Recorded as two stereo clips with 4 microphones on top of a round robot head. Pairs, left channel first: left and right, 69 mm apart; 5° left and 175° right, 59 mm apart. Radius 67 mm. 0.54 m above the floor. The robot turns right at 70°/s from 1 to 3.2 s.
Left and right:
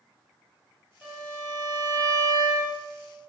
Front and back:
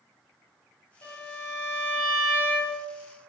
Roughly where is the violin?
Ahead.